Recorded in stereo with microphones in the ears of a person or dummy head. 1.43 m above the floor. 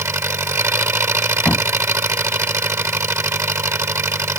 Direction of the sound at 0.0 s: 5° right (ahead or behind).